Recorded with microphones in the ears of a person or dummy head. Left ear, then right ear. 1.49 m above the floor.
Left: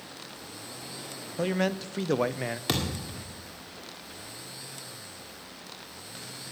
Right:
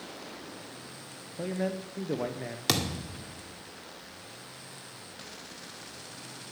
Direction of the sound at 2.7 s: 25° right (ahead or behind).